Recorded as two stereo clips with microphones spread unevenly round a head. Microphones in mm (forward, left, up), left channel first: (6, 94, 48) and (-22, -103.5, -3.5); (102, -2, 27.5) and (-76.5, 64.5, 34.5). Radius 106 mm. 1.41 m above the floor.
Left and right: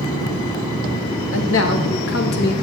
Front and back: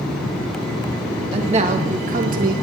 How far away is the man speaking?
About 1.9 m.